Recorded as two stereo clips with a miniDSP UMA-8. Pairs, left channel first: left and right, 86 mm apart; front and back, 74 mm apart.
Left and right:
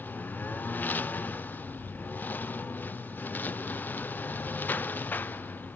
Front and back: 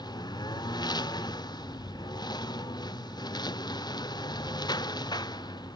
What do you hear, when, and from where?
0.0 s a lawn mower: 20° left